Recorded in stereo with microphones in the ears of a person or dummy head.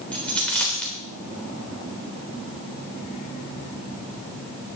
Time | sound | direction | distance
0.1 | a dropped coin | 5° left (ahead or behind) | 2.5 m